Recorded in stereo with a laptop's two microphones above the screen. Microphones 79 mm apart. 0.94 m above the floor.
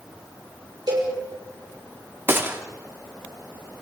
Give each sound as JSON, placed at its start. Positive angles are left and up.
{"t": 0.9, "sound": "a cowbell", "side_deg": -65, "distance_m": 5.5}
{"t": 2.3, "sound": "a gunshot", "side_deg": -30, "distance_m": 2.5}